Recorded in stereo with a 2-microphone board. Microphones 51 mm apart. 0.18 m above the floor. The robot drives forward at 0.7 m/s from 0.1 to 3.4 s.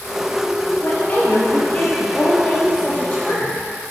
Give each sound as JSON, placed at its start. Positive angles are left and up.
{"t": 0.8, "sound": "a woman speaking", "side_deg": 30, "distance_m": 4.0}